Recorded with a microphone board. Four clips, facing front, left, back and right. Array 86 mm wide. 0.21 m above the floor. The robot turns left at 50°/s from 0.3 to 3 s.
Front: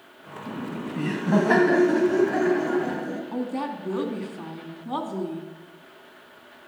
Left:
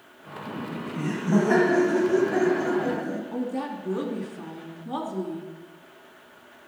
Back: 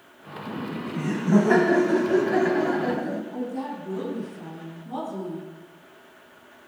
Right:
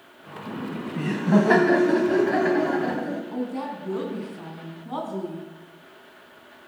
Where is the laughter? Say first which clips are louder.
Right 2 dB, even; 10° right, 1.3 m; by 3.2 s 135° right, 1.3 m.